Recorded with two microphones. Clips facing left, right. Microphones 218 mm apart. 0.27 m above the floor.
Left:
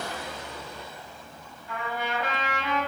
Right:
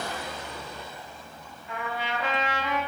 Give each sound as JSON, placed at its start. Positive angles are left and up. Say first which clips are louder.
{"t": 1.7, "sound": "a trumpet", "louder": "left 1 dB", "side_deg": -15, "distance_m": 1.6}